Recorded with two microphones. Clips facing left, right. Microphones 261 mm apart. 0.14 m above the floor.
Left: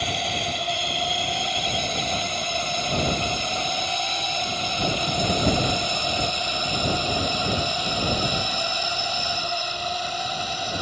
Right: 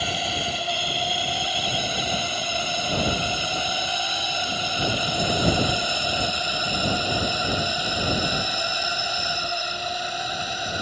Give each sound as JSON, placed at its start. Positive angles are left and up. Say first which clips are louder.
{"t": 0.0, "sound": "a drone", "louder": "even", "side_deg": -5}